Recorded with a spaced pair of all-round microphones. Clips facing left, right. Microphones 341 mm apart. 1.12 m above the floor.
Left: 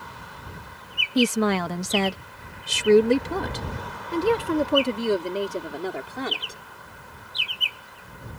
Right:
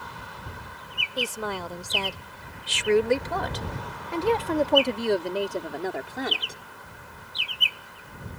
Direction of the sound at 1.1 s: 75° left (ahead or behind).